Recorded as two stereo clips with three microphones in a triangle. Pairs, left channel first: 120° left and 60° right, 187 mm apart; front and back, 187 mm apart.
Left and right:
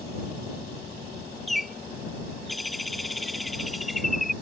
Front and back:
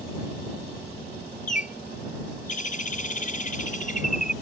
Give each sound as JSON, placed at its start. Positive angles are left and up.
{"t": 1.5, "sound": "a bird", "azimuth_deg": 30}